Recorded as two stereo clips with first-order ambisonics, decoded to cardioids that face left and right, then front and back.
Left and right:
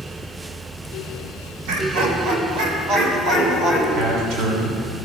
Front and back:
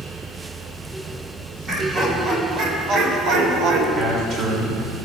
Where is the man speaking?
130° right, 3 m.